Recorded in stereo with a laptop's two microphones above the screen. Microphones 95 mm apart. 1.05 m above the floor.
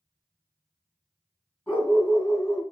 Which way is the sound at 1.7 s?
20° left (ahead or behind).